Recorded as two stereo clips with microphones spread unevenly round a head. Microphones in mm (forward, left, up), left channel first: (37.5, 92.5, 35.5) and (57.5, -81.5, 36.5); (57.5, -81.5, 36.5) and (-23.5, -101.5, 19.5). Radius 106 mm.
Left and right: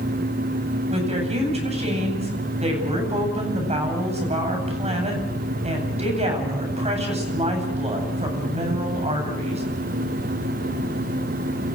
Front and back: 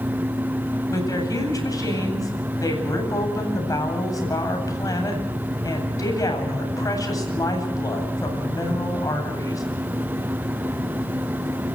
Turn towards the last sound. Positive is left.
turn(degrees=-30)